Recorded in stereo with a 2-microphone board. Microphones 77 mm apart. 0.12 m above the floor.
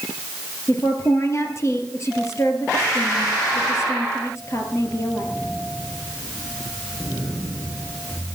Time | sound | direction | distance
0.7 | a woman speaking | 40° left (ahead or behind) | 3 m